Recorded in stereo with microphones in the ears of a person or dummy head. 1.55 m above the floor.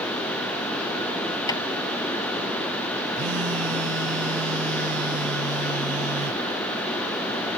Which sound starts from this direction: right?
A phone buzzing, at 3.2 s.